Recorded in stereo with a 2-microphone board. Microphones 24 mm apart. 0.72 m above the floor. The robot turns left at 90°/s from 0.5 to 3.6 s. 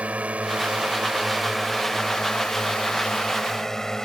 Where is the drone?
75° right (ahead or behind); by 4.0 s 25° left (ahead or behind).